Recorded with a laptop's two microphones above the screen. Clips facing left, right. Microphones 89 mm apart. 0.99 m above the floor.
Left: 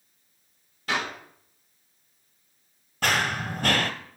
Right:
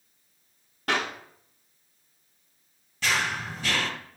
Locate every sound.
0.9 s a clap: 60° right (ahead or behind), 2 m
3.0 s running footsteps: 50° left (ahead or behind), 1.4 m